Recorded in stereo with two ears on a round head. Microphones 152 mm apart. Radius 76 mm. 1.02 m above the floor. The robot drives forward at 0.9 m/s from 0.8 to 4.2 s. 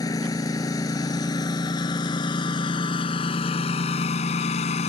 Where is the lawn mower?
20° left (ahead or behind); by 4.9 s 40° left (ahead or behind).